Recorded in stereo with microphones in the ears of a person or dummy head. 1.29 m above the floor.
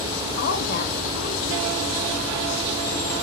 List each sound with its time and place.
0.4 s a woman speaking: 65° left (ahead or behind), 2.5 m